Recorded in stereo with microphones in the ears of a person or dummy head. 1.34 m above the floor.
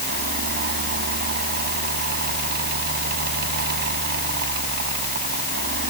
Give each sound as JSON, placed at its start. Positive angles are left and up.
{"t": 0.0, "sound": "a fan", "side_deg": -50}